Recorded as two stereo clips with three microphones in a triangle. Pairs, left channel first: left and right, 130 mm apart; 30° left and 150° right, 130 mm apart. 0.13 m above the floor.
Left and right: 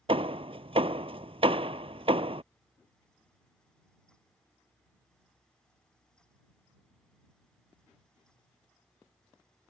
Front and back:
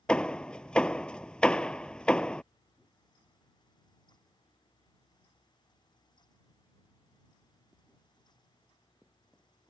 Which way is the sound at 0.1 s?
55° right.